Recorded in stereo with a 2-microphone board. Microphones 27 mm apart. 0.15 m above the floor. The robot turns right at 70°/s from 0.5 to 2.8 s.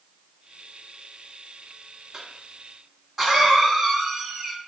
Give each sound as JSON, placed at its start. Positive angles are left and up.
{"t": 2.1, "sound": "a cough", "side_deg": -25, "distance_m": 1.2}